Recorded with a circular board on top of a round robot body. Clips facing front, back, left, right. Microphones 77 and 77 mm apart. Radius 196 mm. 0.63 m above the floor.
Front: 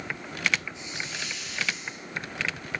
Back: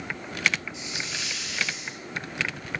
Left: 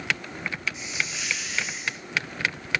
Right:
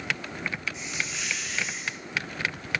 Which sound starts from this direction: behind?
A hiss, at 0.7 s.